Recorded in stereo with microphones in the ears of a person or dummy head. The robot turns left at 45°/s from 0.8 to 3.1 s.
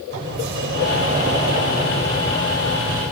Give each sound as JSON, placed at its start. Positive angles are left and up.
{"t": 0.1, "sound": "a sliding door", "azimuth_deg": -130, "distance_m": 5.0}